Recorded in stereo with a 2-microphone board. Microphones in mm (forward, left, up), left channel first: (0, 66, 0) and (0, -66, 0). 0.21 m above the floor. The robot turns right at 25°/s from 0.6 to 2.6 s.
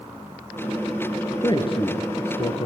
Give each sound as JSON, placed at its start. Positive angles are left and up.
{"t": 1.4, "sound": "a man speaking", "side_deg": 35, "distance_m": 2.5}